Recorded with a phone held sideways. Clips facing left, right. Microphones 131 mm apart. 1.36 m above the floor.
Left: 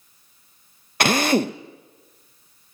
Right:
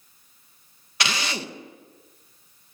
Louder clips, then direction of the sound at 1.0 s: Left 11 dB; 50° left (ahead or behind).